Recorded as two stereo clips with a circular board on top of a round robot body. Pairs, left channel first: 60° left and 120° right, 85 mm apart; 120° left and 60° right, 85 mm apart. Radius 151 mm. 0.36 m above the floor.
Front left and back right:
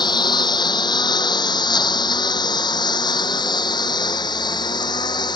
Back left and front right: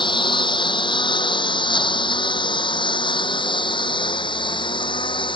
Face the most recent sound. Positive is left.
turn(degrees=95)